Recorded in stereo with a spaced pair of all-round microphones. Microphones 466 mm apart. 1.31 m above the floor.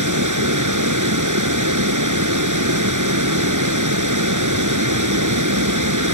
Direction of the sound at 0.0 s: 40° right (ahead or behind).